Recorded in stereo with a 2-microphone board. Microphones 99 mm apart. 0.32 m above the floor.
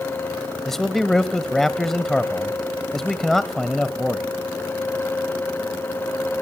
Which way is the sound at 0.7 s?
5° left (ahead or behind).